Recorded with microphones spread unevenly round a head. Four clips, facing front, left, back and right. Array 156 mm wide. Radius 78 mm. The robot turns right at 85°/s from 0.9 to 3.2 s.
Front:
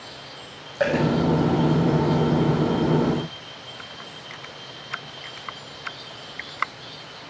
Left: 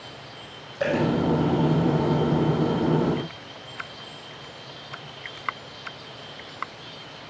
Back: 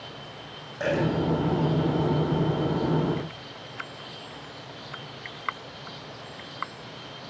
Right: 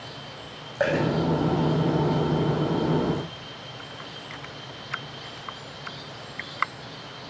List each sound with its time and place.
0.8 s a dropped coin: 55° right, 7 m; by 1.1 s 40° right, 7 m